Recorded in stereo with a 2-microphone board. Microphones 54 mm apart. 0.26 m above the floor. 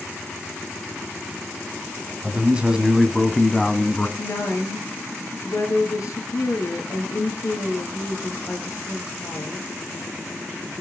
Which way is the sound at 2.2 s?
30° right (ahead or behind).